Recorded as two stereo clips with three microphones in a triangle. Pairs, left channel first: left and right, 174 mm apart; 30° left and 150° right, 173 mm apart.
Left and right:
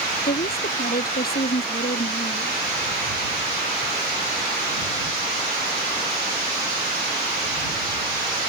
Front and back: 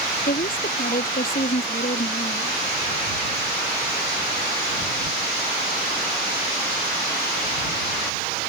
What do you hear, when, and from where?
0.2 s a woman speaking: 65° left